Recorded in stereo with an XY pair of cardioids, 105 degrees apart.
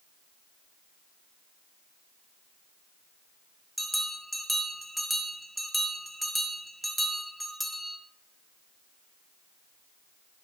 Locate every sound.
3.8 s a bell: straight ahead, 1.6 m